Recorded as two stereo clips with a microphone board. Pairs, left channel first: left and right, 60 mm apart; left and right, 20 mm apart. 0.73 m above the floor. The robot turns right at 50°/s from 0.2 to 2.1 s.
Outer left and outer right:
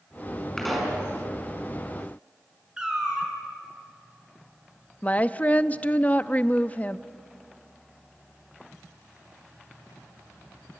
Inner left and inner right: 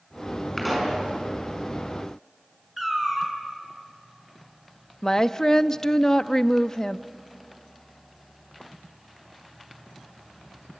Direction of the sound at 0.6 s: 5° left (ahead or behind).